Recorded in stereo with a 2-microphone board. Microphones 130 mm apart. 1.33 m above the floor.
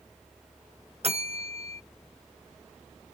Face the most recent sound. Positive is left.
turn(degrees=-50)  # may be behind; listen again after turning